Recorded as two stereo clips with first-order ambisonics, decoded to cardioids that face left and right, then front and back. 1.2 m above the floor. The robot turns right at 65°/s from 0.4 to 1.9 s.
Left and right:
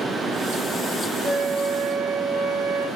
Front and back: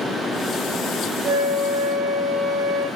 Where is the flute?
170° right, 1.2 m; by 2.9 s 125° right, 1.2 m.